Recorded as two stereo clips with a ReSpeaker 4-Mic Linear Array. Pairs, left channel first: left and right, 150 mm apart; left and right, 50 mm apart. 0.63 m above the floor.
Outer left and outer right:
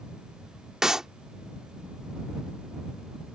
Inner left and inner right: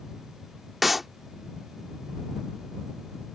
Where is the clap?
5° right (ahead or behind).